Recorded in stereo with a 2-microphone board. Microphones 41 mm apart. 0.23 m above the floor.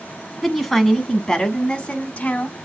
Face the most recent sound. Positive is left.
turn(degrees=35)  # may be behind; listen again after turning